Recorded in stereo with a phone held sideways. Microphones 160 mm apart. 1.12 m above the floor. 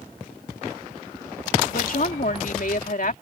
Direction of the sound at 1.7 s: 65° left (ahead or behind).